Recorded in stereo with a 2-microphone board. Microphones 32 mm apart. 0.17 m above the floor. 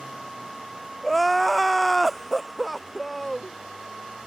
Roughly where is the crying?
Centre.